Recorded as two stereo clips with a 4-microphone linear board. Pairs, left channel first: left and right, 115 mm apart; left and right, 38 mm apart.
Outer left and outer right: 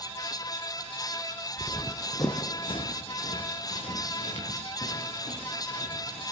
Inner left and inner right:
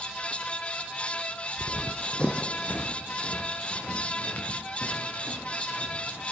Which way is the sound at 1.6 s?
15° right (ahead or behind).